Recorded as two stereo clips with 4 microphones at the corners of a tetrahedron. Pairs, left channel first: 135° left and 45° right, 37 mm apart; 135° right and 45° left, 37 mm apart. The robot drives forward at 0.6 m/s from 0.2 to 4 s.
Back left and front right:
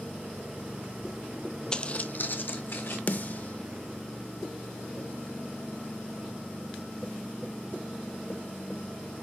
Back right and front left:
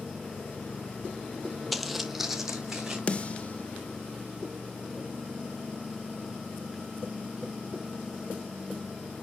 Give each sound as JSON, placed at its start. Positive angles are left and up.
{"t": 1.7, "sound": "footsteps", "azimuth_deg": 125, "distance_m": 0.5}
{"t": 3.1, "sound": "a snare drum", "azimuth_deg": 170, "distance_m": 0.5}